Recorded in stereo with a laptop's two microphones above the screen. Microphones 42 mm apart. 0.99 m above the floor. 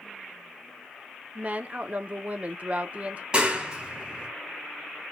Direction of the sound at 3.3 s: 20° right (ahead or behind).